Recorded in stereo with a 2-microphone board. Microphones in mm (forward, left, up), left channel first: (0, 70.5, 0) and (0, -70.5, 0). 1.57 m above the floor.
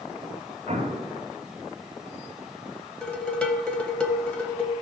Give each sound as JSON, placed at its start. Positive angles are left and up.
{"t": 0.7, "sound": "an explosion", "side_deg": -50, "distance_m": 2.0}
{"t": 3.0, "sound": "dishes clattering", "side_deg": 10, "distance_m": 0.9}